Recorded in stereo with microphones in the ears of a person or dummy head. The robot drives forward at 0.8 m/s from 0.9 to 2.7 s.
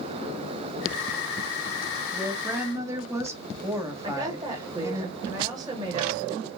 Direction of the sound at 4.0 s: 30° right (ahead or behind).